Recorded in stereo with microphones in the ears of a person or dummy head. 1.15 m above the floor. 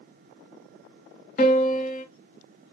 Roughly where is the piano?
Left.